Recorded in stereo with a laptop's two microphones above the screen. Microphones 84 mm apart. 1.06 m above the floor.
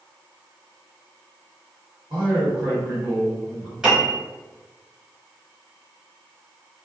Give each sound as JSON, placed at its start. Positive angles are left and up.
{"t": 2.1, "sound": "a man speaking", "side_deg": -60, "distance_m": 1.5}
{"t": 3.8, "sound": "a piano", "side_deg": -10, "distance_m": 0.9}